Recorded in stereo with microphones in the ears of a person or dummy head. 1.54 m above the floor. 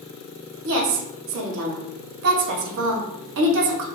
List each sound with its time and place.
0.7 s a woman speaking: 60° right (ahead or behind), 0.8 m